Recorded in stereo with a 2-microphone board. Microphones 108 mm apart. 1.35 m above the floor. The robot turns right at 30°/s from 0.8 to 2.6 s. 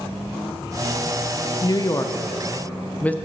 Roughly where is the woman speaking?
Left.